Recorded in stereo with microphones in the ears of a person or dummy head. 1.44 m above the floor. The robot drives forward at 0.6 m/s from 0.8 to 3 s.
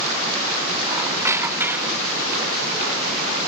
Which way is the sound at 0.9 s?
15° right (ahead or behind).